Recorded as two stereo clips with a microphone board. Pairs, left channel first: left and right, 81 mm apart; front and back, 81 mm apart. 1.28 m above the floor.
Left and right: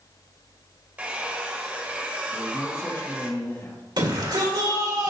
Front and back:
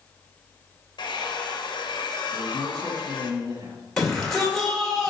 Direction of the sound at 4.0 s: 85° right.